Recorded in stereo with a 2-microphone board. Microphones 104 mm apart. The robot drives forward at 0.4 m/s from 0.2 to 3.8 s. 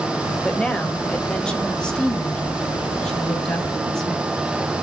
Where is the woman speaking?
10° left (ahead or behind), 1.2 m; by 4.3 s 5° left (ahead or behind), 2 m.